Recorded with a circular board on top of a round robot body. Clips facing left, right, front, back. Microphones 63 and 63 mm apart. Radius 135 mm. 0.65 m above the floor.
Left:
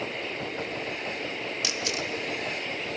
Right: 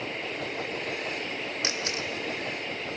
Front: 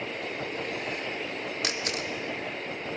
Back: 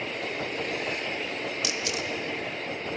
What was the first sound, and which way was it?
A camera shutter, 35° right.